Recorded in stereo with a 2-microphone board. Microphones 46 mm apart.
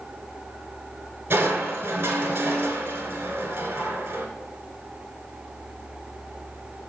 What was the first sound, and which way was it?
Crushing, 55° right (ahead or behind).